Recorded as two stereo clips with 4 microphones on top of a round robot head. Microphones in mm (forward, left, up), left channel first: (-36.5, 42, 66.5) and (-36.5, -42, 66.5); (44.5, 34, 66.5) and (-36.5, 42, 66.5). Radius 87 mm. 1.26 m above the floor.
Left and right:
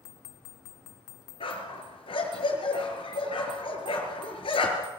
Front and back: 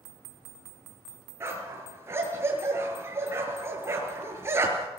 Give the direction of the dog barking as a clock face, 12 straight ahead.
8 o'clock.